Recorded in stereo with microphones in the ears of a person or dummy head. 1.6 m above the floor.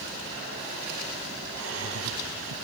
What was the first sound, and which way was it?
Laughter, 80° right.